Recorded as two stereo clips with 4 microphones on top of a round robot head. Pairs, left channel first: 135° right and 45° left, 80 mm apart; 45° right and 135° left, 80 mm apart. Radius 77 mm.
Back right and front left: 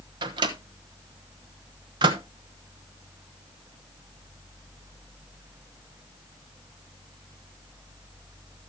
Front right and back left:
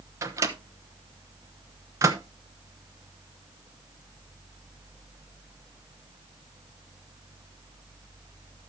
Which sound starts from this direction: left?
A microwave, at 0.2 s.